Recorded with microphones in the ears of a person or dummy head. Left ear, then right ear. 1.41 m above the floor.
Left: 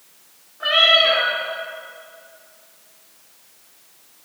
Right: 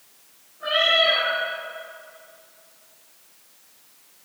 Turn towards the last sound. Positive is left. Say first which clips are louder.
# left 5 dB
turn(degrees=50)  # may be behind; listen again after turning